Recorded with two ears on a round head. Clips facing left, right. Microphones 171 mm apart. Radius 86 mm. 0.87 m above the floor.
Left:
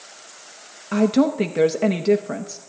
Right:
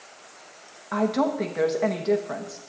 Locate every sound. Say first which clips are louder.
0.9 s a woman speaking: left 6 dB; 35° left (ahead or behind), 0.7 m